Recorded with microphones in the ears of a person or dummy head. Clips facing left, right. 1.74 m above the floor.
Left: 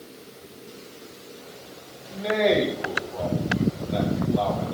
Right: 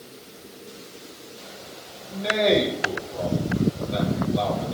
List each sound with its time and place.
2.1 s a man speaking: 10° right (ahead or behind), 0.8 m